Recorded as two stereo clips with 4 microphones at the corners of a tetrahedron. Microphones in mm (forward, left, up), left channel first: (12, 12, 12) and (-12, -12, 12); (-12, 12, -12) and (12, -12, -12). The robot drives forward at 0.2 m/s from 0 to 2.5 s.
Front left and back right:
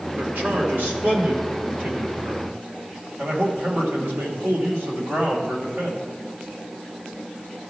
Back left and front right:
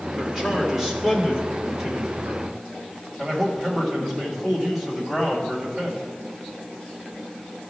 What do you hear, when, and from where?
0.2 s a man speaking: 125° right, 2 m; by 6.0 s 135° right, 2.5 m